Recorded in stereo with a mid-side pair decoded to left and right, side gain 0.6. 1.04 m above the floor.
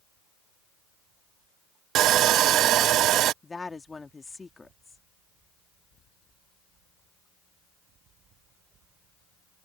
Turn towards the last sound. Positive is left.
turn(degrees=20)